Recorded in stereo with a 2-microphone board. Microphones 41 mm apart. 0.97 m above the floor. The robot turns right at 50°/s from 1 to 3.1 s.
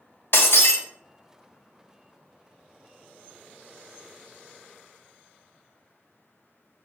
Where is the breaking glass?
70° left (ahead or behind), 0.7 m.